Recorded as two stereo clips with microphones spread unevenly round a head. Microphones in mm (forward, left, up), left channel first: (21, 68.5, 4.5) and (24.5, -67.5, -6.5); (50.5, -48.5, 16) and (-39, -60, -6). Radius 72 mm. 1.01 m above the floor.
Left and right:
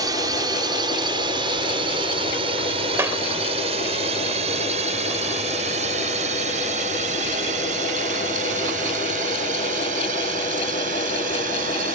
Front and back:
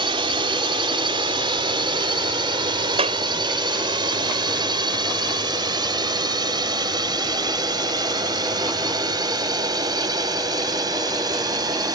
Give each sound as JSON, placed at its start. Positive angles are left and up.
{"t": 0.0, "sound": "a drone", "azimuth_deg": -155}
{"t": 3.0, "sound": "a clap", "azimuth_deg": -165}